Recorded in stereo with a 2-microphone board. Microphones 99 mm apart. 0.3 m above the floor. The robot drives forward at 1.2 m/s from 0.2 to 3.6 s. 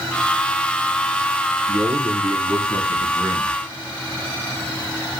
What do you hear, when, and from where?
1.7 s a man speaking: 25° right (ahead or behind), 3.5 m; by 3.5 s 45° right (ahead or behind), 2 m